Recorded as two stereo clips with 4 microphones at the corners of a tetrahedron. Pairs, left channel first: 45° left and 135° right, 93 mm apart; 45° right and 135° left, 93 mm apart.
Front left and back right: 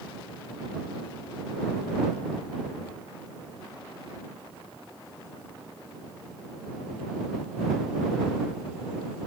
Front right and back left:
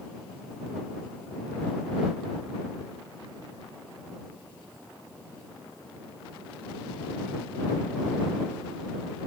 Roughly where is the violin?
I don't hear a violin.